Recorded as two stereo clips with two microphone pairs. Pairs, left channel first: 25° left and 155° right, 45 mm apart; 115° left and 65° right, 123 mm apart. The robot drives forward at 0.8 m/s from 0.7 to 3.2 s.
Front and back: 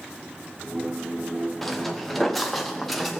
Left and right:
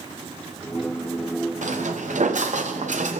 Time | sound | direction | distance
1.6 | footsteps | 60° right | 1.8 m